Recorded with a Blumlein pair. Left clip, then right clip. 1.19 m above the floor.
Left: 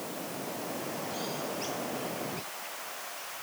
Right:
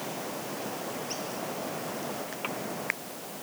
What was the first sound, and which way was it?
Only background noise.